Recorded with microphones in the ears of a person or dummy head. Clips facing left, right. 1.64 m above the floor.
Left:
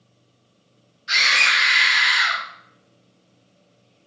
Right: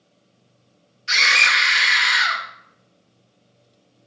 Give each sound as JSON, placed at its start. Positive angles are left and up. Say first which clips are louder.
{"t": 1.1, "sound": "a scream", "louder": "right 2 dB", "side_deg": -35, "distance_m": 1.2}